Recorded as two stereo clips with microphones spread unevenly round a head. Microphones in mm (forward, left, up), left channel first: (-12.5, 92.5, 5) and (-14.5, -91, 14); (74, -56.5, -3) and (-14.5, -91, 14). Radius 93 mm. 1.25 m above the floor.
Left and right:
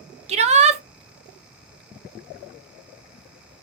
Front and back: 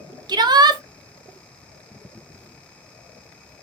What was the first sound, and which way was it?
A shout, 125° right.